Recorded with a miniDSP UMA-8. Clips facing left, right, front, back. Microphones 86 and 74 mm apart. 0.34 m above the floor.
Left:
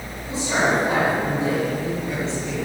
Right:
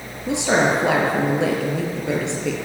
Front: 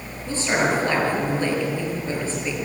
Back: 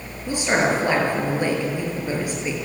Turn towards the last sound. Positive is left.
turn(degrees=-105)